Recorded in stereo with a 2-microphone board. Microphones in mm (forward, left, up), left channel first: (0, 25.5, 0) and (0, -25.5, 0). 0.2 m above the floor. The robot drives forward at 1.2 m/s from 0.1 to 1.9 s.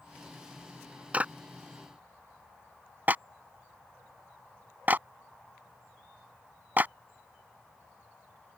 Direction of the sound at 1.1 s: 25° right (ahead or behind).